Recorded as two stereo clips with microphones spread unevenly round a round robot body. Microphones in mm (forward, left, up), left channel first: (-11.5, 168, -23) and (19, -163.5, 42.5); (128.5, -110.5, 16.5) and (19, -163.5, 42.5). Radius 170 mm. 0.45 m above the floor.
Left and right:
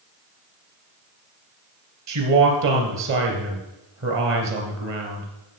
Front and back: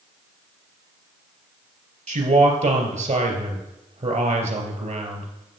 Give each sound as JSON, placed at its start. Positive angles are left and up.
{"t": 2.1, "sound": "a man speaking", "azimuth_deg": -140, "distance_m": 3.0}